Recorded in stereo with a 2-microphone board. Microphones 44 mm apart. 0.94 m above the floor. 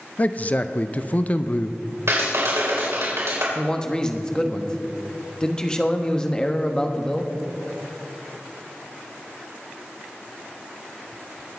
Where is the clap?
85° right, 3.5 m.